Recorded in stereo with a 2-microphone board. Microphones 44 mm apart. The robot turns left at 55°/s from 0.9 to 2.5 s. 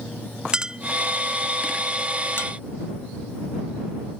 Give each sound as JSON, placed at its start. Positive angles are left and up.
{"t": 0.5, "sound": "a clink", "side_deg": -15}